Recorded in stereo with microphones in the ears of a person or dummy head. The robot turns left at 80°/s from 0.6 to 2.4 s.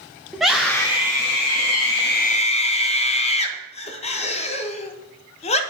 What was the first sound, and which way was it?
A scream, straight behind.